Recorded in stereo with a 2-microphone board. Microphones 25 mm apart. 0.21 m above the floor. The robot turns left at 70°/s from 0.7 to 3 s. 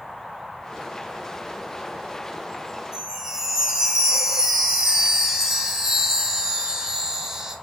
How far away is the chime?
About 1.4 m.